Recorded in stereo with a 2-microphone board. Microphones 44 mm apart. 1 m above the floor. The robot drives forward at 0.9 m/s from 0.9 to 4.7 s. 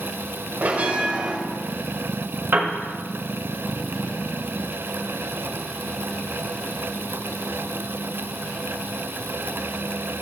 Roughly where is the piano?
Right.